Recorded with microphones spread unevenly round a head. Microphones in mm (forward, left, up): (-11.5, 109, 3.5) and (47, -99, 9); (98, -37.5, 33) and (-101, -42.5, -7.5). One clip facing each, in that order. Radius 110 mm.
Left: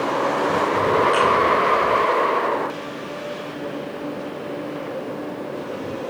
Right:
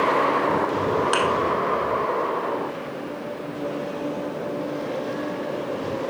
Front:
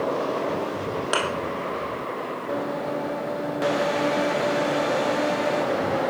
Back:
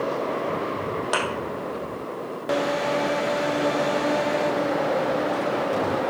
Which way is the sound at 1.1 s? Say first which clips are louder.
Left 3 dB, front 1 dB; 75° right.